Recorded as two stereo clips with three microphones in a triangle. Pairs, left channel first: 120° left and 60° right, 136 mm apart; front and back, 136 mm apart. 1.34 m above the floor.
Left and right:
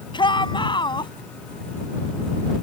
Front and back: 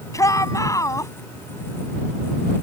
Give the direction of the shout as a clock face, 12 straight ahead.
10 o'clock.